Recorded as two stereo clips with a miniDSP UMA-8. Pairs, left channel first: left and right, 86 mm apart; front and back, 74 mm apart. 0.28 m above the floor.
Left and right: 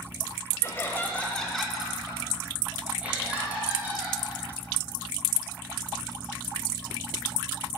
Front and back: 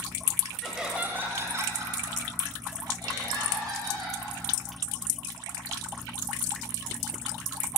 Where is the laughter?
90° left, 1.5 m; by 4.2 s 160° right, 5 m.